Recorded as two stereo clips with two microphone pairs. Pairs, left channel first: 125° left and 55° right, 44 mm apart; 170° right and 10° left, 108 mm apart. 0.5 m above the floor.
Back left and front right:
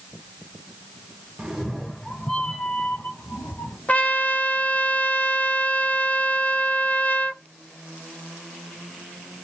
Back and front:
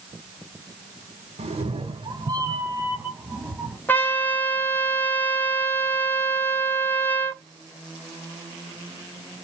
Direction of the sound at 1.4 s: 10° left.